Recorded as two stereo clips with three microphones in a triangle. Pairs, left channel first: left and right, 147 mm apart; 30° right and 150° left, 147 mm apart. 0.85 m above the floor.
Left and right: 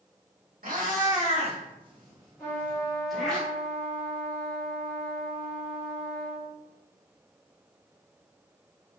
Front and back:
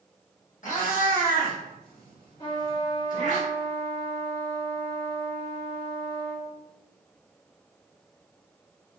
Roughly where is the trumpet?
Ahead.